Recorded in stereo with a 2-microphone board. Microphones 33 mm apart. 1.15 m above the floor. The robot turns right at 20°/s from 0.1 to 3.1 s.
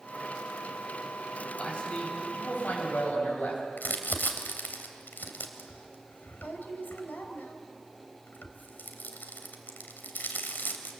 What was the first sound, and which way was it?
A man speaking, 35° left.